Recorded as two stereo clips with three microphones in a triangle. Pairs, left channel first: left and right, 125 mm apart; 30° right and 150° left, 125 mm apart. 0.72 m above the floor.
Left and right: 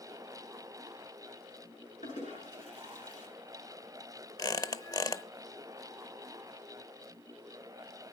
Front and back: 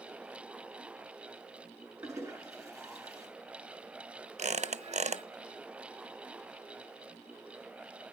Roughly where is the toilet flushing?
Left.